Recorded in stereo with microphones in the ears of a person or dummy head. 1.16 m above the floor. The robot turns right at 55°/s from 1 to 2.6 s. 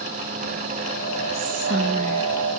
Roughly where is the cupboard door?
No cupboard door in this recording.